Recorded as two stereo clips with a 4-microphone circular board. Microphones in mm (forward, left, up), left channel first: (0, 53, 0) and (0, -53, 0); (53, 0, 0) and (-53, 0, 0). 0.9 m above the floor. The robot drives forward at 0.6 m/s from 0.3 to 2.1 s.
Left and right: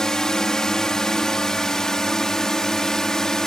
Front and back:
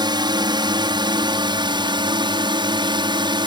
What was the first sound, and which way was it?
A drone, 170° left.